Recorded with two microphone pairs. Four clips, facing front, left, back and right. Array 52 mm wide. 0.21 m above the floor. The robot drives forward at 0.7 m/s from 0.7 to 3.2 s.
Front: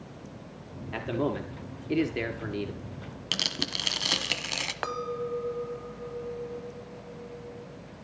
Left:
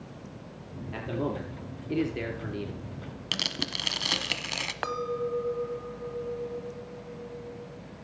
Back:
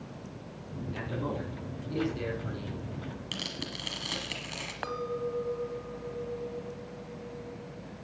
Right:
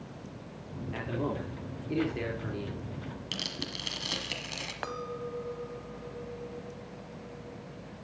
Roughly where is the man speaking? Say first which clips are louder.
Left 2 dB, front 6 dB; ahead.